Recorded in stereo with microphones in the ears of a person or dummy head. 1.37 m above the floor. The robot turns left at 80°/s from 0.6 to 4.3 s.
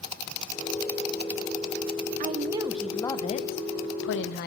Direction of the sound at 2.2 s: 130° right.